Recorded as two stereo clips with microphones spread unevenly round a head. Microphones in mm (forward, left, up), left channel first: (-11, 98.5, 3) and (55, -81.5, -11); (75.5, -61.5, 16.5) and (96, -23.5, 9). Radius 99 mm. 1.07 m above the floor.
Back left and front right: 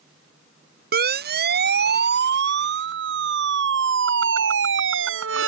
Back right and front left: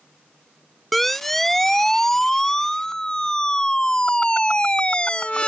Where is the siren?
35° right; by 5.5 s 55° right.